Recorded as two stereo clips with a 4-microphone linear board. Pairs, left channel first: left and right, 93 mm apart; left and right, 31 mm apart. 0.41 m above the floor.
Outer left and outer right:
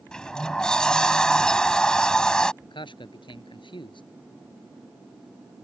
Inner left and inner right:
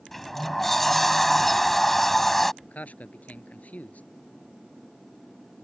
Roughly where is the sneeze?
No sneeze in this recording.